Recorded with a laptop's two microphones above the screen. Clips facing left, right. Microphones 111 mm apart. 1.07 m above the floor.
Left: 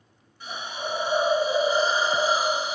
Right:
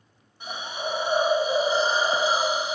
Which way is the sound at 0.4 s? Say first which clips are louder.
Right 1 dB; 25° right (ahead or behind).